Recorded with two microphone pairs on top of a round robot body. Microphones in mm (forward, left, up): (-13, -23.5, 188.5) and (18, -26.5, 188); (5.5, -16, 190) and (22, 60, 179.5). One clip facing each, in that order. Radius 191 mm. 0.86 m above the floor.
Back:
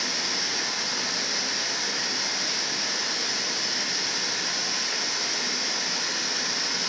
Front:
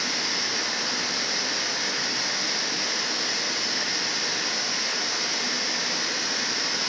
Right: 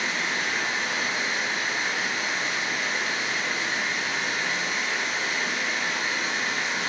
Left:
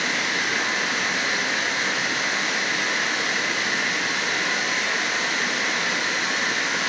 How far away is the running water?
About 0.8 m.